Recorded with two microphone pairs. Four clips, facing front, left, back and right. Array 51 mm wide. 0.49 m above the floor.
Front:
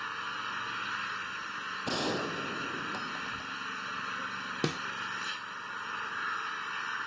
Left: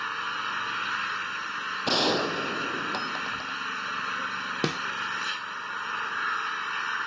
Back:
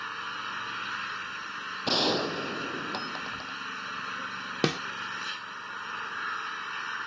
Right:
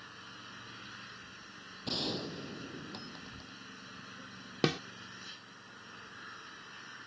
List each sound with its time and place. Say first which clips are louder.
0.0 s an engine running: left 19 dB, back 1 dB; 95° left
1.9 s a gunshot: left 12 dB, back 6 dB; 110° left
4.6 s a snare drum: even, back 6 dB; 175° left